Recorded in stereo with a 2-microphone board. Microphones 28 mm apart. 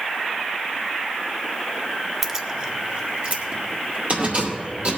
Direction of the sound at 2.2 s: 10° right (ahead or behind).